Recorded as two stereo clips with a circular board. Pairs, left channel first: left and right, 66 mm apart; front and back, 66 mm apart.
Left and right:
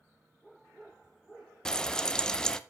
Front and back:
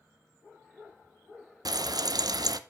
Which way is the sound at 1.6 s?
170° left.